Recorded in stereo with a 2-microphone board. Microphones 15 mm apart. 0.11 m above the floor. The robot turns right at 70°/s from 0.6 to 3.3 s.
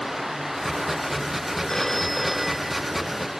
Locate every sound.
1.7 s a phone ringing: 145° left; by 2.9 s 135° right